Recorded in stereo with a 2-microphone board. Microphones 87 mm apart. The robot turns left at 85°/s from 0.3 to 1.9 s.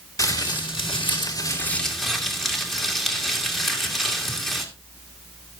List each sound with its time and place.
0.2 s crumpling: 140° left, 2.5 m; by 4.7 s straight ahead, 2.5 m